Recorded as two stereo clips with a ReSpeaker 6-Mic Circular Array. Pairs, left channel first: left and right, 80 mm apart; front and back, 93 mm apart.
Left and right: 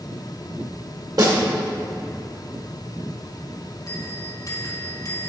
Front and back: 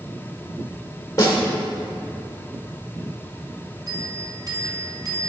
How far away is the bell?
About 1.5 m.